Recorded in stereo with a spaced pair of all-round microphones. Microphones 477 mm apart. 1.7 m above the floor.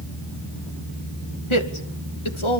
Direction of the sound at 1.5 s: 80° left.